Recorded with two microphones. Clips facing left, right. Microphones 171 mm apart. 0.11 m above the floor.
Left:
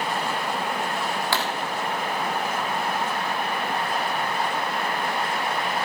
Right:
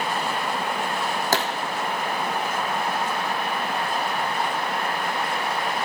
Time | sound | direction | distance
1.3 | a pop | 45° right (ahead or behind) | 2.5 m